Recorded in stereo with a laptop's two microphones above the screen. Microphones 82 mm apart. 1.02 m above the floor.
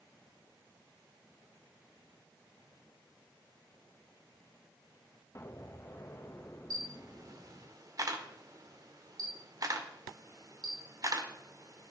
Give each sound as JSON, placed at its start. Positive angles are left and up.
{"t": 5.3, "sound": "an explosion", "side_deg": 40, "distance_m": 1.1}
{"t": 6.7, "sound": "a camera shutter", "side_deg": -45, "distance_m": 1.5}